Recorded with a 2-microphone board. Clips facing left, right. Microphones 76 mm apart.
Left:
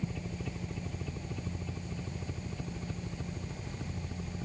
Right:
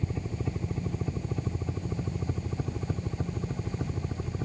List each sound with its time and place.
0.0 s a helicopter: 25° right (ahead or behind); by 4.5 s 35° right (ahead or behind)